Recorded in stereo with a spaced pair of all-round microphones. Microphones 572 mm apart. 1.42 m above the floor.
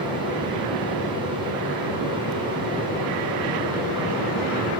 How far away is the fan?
About 1.1 m.